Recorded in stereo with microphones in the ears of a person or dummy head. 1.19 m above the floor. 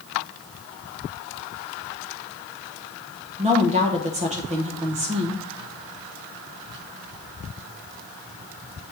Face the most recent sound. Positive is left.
turn(degrees=-40)  # may be behind; listen again after turning